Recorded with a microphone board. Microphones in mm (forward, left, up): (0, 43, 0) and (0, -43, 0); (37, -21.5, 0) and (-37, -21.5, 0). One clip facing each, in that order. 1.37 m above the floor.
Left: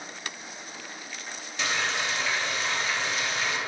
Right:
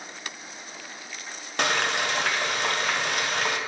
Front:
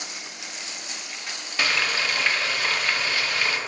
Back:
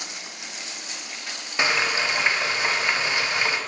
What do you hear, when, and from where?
1.6 s frying: 110° right, 0.6 m